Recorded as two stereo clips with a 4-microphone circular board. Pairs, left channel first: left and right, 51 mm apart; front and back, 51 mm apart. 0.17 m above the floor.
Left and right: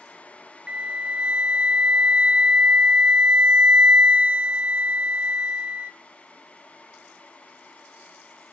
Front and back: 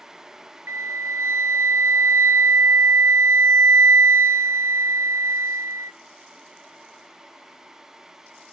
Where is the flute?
155° right, 0.6 m.